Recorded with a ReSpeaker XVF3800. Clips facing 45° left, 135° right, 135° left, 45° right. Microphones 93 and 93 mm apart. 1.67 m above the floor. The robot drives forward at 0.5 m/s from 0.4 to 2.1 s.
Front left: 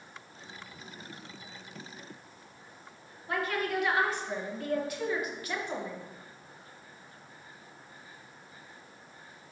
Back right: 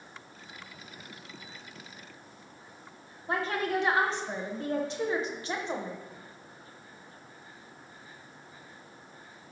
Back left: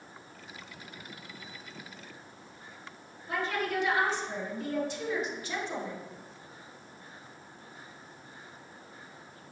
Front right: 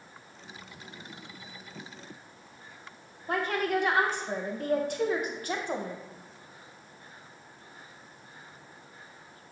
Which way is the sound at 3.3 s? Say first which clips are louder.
Back right 2 dB, front right 3 dB; 75° right.